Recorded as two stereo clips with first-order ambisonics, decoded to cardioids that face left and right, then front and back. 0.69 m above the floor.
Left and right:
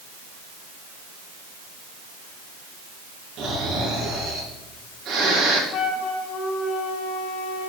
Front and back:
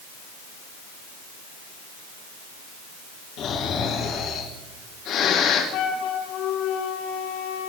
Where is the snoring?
40° right, 5.5 m.